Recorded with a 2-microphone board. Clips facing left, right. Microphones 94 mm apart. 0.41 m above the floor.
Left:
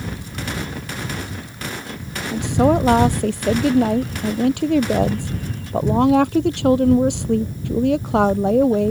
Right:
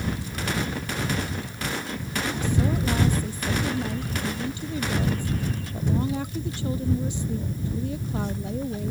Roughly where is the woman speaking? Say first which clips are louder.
Left 12 dB; left.